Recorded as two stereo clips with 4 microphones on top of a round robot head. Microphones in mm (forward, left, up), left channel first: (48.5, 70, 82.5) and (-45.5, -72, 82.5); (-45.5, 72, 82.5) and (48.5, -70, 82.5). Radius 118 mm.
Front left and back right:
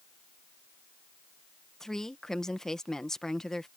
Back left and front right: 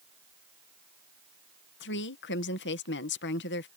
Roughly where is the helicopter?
I don't hear a helicopter.